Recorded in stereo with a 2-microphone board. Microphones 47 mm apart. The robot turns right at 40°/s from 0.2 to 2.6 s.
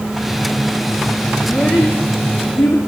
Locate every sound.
1.4 s a child speaking: 20° left (ahead or behind), 4.5 m; by 2.8 s 65° left (ahead or behind), 4.5 m